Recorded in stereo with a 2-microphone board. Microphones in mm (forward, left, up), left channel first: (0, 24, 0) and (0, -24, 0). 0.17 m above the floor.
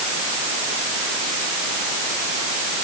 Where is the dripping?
No dripping in this recording.